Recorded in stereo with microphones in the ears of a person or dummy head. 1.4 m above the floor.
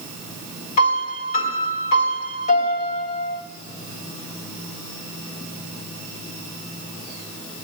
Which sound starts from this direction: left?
A piano, at 0.8 s.